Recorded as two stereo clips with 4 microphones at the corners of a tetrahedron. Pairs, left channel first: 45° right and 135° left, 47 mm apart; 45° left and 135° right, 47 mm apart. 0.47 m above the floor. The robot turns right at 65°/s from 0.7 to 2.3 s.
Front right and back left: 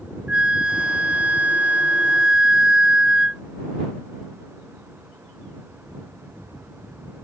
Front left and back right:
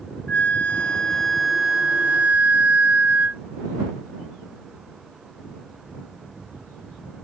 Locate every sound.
0.3 s a flute: 90° left; by 3.4 s 165° right